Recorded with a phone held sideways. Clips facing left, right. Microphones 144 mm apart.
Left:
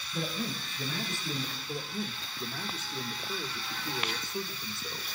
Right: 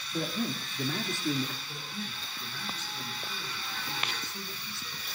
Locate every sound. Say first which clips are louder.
0.1 s a man speaking: right 3 dB; 60° right (ahead or behind), 2.5 m
1.7 s a man speaking: left 5 dB; 50° left (ahead or behind), 1.9 m